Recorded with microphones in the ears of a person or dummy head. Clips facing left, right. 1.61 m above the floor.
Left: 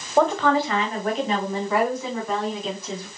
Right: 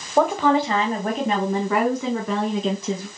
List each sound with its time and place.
0.2 s a woman speaking: centre (ahead or behind), 0.6 m; by 3.1 s 60° right (ahead or behind), 1.7 m